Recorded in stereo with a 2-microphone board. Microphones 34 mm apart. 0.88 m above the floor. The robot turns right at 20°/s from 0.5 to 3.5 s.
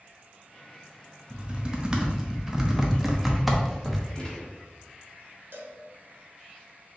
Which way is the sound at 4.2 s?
25° left (ahead or behind).